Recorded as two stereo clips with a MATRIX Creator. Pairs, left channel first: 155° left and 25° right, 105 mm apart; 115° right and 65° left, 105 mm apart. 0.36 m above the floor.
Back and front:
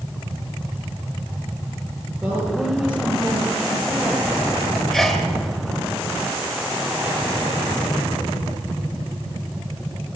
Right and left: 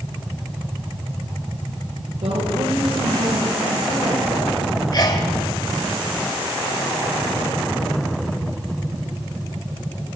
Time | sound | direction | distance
2.2 | a woman speaking | 55° left | 9 m
4.9 | a sneeze | 115° right | 1.9 m